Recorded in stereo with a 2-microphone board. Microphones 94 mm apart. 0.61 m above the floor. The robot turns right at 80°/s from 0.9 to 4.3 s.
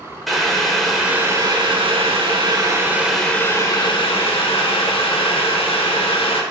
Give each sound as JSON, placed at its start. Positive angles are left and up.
{"t": 0.3, "sound": "boiling", "azimuth_deg": 180, "distance_m": 0.7}